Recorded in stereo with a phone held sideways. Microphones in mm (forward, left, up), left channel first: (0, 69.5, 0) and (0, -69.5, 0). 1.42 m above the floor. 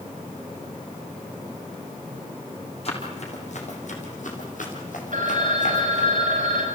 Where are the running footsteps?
50° left (ahead or behind), 4.5 m; by 6.1 s 60° left (ahead or behind), 4.5 m.